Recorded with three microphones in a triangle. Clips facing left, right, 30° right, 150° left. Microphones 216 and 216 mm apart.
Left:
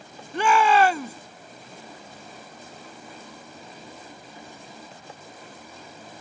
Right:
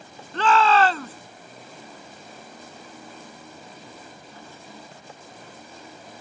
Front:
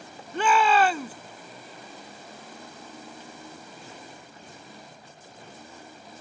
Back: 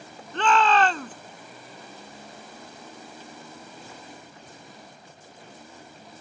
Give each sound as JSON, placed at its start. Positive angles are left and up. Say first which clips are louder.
{"t": 0.3, "sound": "a shout", "louder": "even, even", "azimuth_deg": 35}